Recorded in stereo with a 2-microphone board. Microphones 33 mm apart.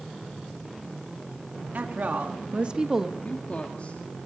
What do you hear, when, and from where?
1.7 s a woman speaking: 65° right (ahead or behind), 2.5 m; by 3.1 s 10° right (ahead or behind), 1.4 m
3.2 s a woman speaking: 45° left (ahead or behind), 2 m